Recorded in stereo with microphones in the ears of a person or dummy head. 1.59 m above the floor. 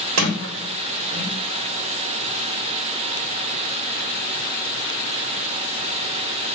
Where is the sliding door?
85° right, 1.5 m.